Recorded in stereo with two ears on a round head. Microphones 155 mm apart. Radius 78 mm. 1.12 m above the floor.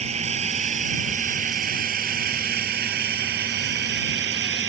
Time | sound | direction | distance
0.0 | a drone | 40° right (ahead or behind) | ?